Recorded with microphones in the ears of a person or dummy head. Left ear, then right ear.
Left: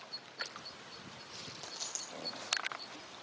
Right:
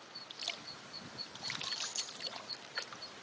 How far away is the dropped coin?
About 2.5 m.